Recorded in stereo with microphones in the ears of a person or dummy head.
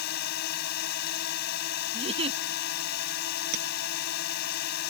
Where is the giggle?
25° right (ahead or behind).